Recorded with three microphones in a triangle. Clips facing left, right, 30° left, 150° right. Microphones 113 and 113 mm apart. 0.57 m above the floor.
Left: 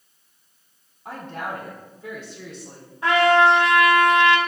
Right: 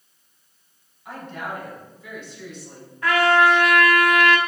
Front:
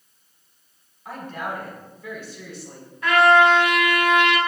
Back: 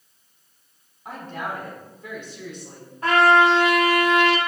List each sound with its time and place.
1.1 s a woman speaking: 140° left, 4.5 m
3.0 s a trumpet: 155° left, 1.2 m